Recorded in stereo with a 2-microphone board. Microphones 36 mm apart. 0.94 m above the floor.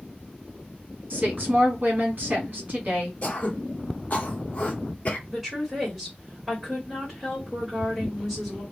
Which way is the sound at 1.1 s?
55° right (ahead or behind).